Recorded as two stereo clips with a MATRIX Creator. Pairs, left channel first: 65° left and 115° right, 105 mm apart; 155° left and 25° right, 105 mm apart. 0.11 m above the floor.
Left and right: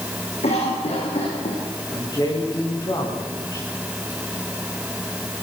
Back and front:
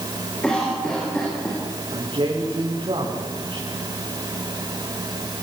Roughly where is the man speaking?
Ahead.